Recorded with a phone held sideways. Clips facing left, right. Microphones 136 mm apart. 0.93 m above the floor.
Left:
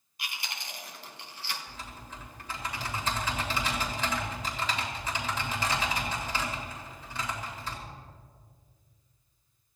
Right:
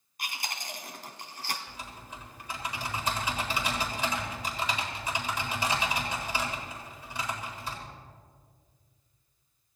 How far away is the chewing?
About 1.9 m.